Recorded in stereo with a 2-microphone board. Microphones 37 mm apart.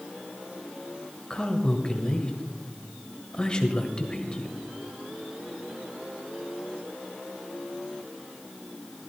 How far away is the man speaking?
About 1.7 m.